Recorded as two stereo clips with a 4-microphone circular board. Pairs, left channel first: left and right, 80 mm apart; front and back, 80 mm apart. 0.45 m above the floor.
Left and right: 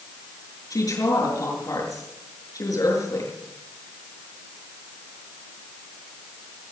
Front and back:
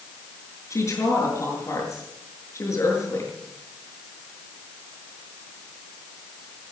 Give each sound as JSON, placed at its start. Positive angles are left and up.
{"t": 0.7, "sound": "a woman speaking", "azimuth_deg": 50, "distance_m": 7.5}